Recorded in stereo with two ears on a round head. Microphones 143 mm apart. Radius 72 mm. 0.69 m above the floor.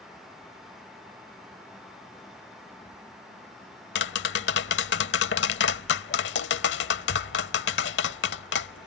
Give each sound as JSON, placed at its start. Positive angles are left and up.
{"t": 4.0, "sound": "tapping", "side_deg": 80}